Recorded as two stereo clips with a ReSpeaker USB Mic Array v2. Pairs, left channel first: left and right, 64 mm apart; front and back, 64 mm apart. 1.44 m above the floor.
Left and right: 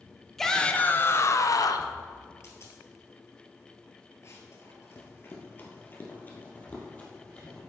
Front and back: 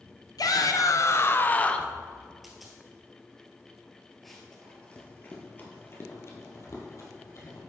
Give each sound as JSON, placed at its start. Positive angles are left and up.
{"t": 0.4, "sound": "a shout", "azimuth_deg": 5, "distance_m": 0.7}
{"t": 2.4, "sound": "a dropped coin", "azimuth_deg": 95, "distance_m": 1.9}
{"t": 4.2, "sound": "running footsteps", "azimuth_deg": 85, "distance_m": 1.9}